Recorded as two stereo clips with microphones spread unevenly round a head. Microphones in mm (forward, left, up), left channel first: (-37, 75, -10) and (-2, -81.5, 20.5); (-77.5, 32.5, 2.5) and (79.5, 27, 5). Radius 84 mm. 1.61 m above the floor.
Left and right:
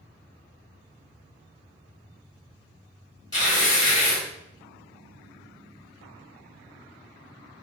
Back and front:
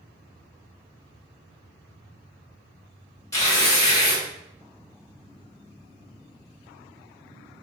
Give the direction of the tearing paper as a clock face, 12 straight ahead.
7 o'clock.